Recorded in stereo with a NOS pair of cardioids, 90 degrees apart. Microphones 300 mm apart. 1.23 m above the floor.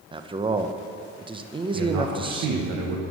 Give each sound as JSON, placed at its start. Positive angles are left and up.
{"t": 0.1, "sound": "a man speaking", "azimuth_deg": -15, "distance_m": 0.7}
{"t": 1.7, "sound": "a man speaking", "azimuth_deg": -65, "distance_m": 1.3}